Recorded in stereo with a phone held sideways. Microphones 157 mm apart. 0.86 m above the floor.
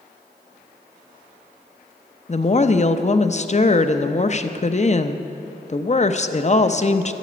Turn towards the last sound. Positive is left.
turn(degrees=45)  # may be behind; listen again after turning